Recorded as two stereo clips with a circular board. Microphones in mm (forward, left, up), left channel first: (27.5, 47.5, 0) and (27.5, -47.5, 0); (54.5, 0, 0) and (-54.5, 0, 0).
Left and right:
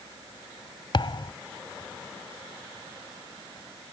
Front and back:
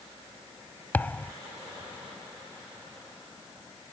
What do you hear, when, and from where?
0.9 s a thud: 70° left